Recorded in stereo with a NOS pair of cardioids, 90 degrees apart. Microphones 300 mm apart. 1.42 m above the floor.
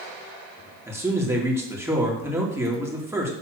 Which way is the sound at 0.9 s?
10° right.